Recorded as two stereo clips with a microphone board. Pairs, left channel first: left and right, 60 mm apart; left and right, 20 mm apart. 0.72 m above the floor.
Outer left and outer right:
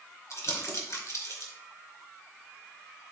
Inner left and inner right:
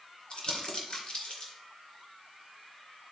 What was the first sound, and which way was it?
Crumpling, 55° left (ahead or behind).